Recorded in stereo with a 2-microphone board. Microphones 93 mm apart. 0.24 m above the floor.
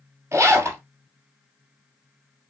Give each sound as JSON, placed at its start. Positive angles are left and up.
{"t": 0.3, "sound": "a zipper", "side_deg": -30, "distance_m": 1.5}